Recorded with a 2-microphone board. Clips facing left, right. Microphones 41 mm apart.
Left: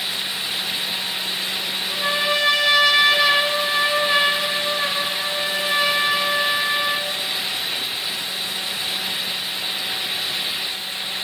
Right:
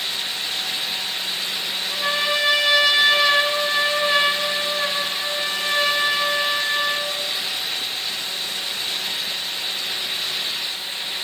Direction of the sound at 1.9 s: Centre (ahead or behind).